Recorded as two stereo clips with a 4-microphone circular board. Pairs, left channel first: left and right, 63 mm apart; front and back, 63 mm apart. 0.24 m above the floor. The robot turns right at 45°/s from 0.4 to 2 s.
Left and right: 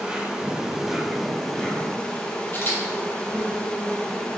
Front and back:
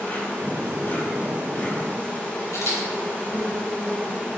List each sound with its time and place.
0.0 s an insect: 35° right, 2 m; by 4.4 s 40° left, 2 m
2.5 s a camera shutter: 35° left, 4 m